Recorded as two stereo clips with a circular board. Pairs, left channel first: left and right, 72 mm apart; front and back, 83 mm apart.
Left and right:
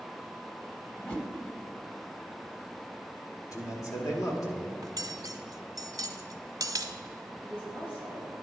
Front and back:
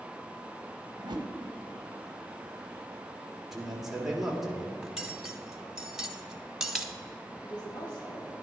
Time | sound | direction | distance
1.0 | a whoosh | 155° left | 1.1 m
3.5 | a man speaking | 95° left | 1.8 m
4.8 | cutlery clinking | 95° right | 0.8 m
7.4 | a woman speaking | 30° left | 4 m